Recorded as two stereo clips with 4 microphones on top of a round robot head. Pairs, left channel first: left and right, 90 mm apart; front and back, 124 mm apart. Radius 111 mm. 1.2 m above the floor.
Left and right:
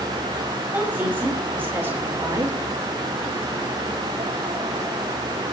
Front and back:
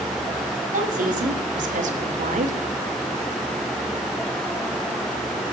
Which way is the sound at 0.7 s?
165° right.